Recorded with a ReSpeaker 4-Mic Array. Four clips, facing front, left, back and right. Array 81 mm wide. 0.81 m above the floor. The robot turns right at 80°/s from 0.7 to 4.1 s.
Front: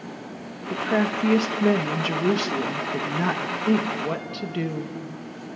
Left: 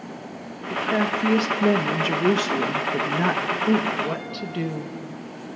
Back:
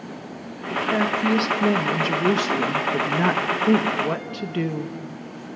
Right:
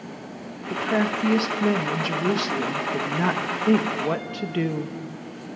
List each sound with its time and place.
0.7 s a woman speaking: 30° right, 1.0 m; by 5.0 s 115° right, 1.0 m